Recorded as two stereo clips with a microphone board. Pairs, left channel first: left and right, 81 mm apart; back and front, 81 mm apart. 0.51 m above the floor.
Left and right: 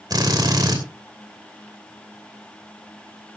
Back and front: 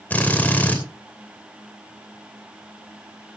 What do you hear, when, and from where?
0.1 s a drill: 110° right, 2.5 m